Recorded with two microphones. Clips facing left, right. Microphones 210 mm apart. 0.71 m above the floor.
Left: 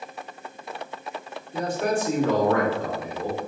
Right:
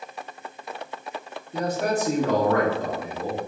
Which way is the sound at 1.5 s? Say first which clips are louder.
Even; 40° right (ahead or behind).